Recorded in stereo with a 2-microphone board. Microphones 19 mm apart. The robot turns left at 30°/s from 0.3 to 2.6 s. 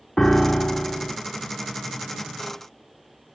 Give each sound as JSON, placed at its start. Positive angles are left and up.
{"t": 0.2, "sound": "a piano", "side_deg": 25, "distance_m": 1.2}